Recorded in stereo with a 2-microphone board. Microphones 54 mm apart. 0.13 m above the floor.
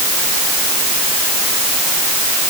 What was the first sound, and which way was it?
Only background noise.